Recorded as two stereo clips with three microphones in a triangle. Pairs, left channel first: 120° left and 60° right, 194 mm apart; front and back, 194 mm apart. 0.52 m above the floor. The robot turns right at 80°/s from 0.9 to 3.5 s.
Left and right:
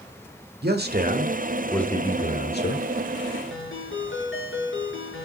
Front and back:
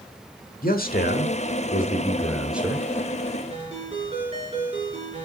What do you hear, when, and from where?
0.6 s a man speaking: 35° right, 1.5 m; by 2.9 s 120° left, 1.5 m
3.5 s a ringtone: 120° left, 6 m